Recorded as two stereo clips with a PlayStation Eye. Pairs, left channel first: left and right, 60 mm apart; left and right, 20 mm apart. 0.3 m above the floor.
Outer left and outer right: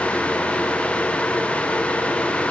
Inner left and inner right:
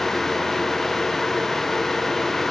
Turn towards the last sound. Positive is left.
No sound to turn to.